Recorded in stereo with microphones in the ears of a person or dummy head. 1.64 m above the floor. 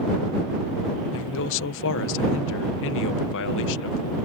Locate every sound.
1.1 s a man speaking: 75° left (ahead or behind)